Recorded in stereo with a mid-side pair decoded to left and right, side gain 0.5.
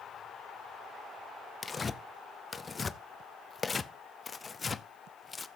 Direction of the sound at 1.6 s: 30° left.